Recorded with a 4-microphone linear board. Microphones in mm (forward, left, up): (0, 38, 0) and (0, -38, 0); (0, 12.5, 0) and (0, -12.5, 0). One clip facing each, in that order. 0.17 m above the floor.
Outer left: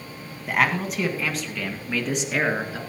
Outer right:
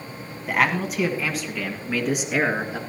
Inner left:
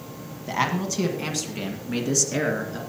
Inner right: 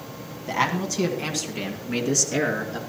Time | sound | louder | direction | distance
0.5 | a man speaking | outer right 1 dB, inner right 1 dB | centre (ahead or behind) | 1.7 m